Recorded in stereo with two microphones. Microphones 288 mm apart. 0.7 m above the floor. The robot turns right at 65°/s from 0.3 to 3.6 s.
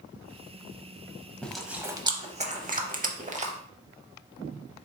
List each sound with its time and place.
1.4 s chewing: 5° left (ahead or behind), 0.5 m; by 3.5 s 25° right (ahead or behind), 0.5 m